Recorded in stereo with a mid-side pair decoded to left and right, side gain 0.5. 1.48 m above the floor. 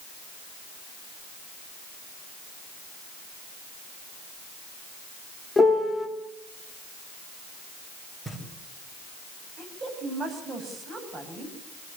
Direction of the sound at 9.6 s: 40° right.